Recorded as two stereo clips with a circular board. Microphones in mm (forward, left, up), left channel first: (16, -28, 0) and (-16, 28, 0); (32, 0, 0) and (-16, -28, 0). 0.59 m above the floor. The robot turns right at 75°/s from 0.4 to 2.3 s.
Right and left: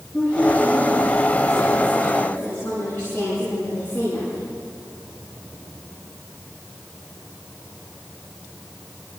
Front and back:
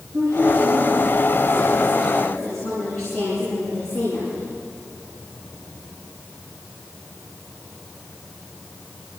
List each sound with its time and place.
0.1 s a woman speaking: 140° right, 8 m; by 4.5 s straight ahead, 8 m